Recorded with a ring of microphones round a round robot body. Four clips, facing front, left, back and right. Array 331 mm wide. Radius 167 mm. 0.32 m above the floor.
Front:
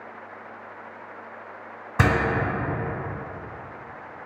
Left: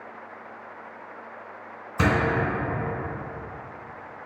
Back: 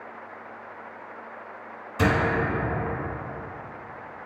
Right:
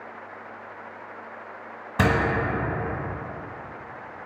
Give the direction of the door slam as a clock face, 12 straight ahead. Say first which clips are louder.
Right 1 dB, front 1 dB; 1 o'clock.